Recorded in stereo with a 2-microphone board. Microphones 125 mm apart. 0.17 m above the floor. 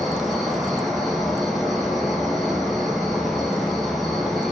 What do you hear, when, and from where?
0.0 s an insect: centre (ahead or behind), 0.9 m